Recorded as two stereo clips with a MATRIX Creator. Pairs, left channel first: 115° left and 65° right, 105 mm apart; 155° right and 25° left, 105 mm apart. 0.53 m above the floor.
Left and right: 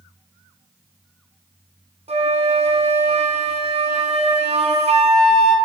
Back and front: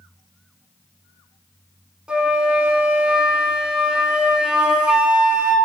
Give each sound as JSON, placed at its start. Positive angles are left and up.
{"t": 2.1, "sound": "a flute", "azimuth_deg": -60, "distance_m": 2.5}